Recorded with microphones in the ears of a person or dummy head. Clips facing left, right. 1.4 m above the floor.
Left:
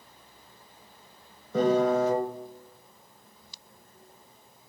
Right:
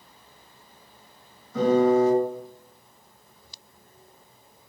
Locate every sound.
1.5 s a piano: 50° left (ahead or behind), 1.0 m